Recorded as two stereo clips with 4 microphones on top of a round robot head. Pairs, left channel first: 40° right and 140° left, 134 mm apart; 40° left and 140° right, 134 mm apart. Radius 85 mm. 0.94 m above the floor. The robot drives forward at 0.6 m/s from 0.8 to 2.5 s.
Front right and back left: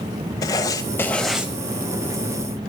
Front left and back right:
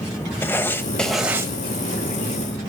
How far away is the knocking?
No knocking in this recording.